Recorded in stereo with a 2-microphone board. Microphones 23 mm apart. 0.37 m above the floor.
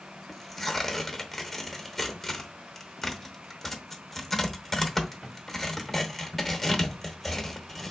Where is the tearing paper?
5° left (ahead or behind), 0.8 m.